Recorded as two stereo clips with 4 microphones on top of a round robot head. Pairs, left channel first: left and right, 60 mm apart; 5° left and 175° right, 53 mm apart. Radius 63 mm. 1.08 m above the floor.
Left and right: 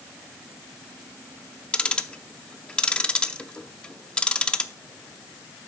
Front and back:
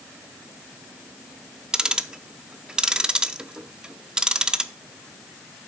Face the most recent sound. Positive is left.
turn(degrees=135)